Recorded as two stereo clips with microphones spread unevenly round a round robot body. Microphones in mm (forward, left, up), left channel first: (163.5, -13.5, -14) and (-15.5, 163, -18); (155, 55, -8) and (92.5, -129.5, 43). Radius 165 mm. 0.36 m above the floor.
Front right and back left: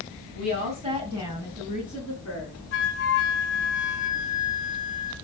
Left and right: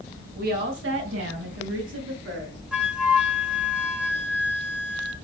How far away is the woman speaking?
About 2.0 m.